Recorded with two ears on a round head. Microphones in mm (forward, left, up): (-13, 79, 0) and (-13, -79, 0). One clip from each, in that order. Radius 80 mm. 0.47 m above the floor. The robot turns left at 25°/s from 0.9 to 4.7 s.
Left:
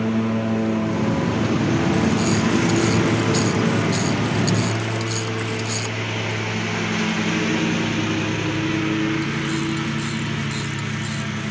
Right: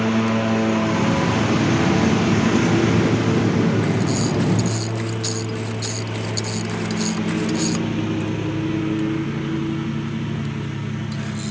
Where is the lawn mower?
145° right; by 11.5 s 120° left.